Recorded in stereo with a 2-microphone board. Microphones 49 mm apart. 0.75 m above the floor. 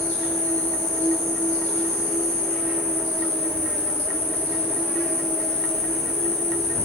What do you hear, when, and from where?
0.0 s an insect: 30° left (ahead or behind), 1.8 m